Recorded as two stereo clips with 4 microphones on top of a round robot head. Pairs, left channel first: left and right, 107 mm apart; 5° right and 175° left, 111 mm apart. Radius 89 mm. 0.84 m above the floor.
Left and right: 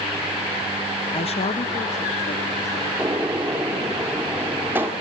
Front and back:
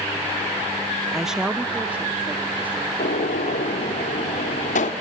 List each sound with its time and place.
1.1 s a woman speaking: 85° left, 0.6 m; by 4.0 s 100° left, 4 m
3.0 s a gunshot: 15° right, 1.9 m